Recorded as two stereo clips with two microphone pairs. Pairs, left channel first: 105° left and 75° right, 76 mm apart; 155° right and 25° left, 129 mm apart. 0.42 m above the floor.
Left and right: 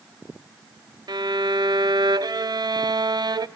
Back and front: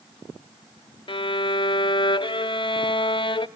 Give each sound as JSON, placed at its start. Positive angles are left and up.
{"t": 1.1, "sound": "a violin", "azimuth_deg": -105, "distance_m": 0.6}